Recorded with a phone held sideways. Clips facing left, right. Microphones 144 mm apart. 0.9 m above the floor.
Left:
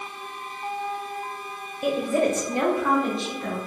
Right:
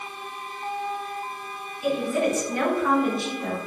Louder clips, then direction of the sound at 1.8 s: Left 1 dB; 55° left (ahead or behind).